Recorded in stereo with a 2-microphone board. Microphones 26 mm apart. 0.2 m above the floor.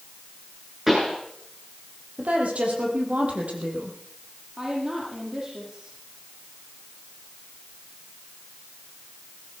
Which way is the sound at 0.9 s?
10° right (ahead or behind).